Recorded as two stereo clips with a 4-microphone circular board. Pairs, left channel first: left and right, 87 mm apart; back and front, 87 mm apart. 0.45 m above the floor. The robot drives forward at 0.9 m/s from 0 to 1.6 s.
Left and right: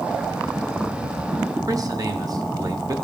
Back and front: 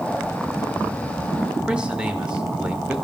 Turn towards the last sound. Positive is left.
turn(degrees=-75)